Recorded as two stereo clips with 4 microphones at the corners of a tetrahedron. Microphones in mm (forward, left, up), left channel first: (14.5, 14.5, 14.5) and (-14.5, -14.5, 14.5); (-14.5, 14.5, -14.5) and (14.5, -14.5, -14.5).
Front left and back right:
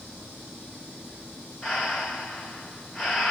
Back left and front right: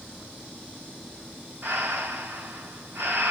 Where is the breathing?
35° right, 1.8 m.